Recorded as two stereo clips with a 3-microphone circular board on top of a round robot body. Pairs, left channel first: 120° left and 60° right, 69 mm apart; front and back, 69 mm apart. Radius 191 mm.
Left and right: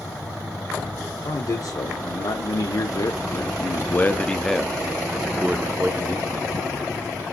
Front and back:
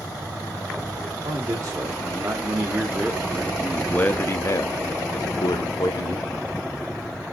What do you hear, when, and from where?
1.2 s a man speaking: 135° left, 2 m; by 6.5 s 5° right, 2 m